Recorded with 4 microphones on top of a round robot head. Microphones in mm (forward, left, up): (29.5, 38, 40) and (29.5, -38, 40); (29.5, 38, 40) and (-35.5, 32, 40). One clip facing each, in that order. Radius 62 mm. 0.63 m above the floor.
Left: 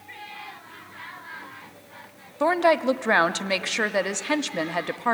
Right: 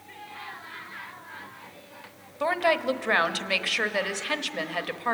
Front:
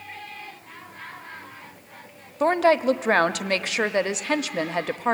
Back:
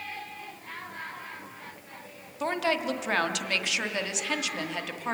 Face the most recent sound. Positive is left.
turn(degrees=35)